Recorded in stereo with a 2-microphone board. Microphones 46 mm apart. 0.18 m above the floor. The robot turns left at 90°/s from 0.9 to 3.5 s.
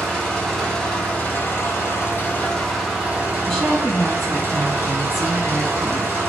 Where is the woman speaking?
5° left (ahead or behind), 1.3 m.